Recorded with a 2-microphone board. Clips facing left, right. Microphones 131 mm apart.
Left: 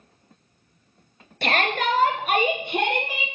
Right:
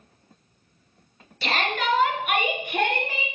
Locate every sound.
1.4 s a shout: 55° left (ahead or behind), 2.5 m; by 3.3 s 10° left (ahead or behind), 2 m